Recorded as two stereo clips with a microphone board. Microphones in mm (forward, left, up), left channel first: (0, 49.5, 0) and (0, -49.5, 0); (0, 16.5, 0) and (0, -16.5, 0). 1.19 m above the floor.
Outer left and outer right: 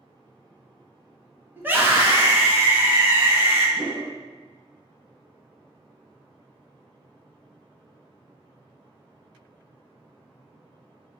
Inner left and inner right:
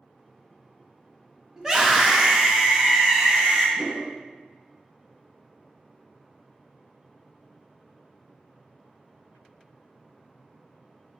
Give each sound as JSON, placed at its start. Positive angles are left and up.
{"t": 1.6, "sound": "a scream", "side_deg": -20, "distance_m": 1.1}
{"t": 3.8, "sound": "a whoosh", "side_deg": -45, "distance_m": 1.3}